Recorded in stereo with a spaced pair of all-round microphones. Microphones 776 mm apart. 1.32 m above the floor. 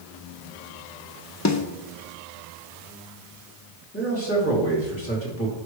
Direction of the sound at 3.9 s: 15° left (ahead or behind).